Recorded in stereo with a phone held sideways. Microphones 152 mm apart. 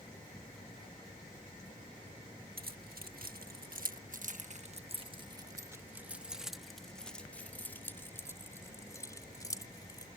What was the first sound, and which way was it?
Keys jangling, 80° right.